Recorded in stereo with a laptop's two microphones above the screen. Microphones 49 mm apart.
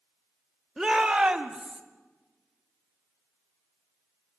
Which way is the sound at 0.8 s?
Centre (ahead or behind).